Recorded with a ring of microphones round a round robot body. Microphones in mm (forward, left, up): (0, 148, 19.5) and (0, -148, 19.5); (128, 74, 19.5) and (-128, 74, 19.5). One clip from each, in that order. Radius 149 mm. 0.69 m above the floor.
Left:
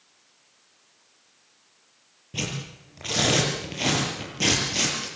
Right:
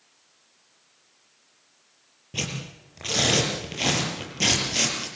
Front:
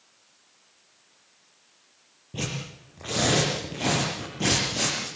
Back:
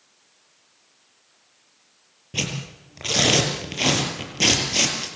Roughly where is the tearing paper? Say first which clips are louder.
Even, back 6 dB; behind.